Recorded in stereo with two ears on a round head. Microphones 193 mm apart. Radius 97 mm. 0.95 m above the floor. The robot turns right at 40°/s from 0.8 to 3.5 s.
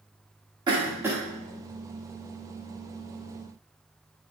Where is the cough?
20° right (ahead or behind), 1.5 m; by 1.2 s 5° right (ahead or behind), 1.5 m.